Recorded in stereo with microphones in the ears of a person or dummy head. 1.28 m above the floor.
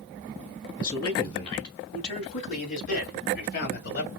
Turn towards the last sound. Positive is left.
turn(degrees=60)  # may be behind; listen again after turning